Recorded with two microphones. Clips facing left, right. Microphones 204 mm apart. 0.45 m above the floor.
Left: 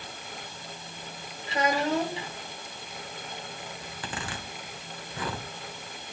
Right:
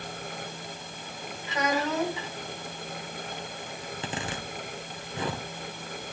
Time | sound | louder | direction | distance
1.5 | a child speaking | left 2 dB | 30° left (ahead or behind) | 3 m
3.8 | a zipper | right 5 dB | 25° right (ahead or behind) | 1.5 m